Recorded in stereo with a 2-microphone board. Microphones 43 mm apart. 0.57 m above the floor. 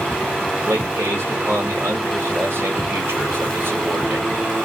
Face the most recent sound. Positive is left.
turn(degrees=-70)  # may be behind; listen again after turning